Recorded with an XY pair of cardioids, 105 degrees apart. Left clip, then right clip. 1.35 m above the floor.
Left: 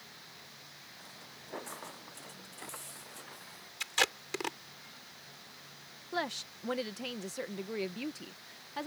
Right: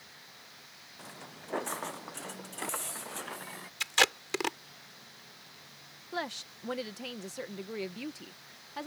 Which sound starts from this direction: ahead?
A woman speaking, at 6.1 s.